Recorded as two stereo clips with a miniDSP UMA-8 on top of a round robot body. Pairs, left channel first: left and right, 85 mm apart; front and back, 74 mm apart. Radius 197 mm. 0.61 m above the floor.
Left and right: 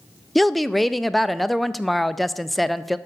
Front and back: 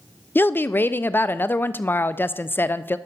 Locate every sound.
0.3 s a woman speaking: straight ahead, 0.6 m